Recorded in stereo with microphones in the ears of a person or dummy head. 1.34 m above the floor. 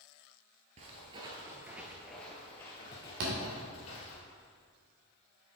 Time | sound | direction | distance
0.8 | footsteps | 40° right (ahead or behind) | 1.7 m
3.2 | a thud | 70° right (ahead or behind) | 2.5 m